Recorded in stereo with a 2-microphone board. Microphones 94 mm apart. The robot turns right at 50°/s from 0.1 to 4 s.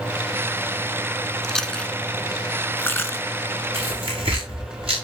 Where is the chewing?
Centre (ahead or behind), 0.9 m; by 3.2 s 20° left (ahead or behind), 0.9 m.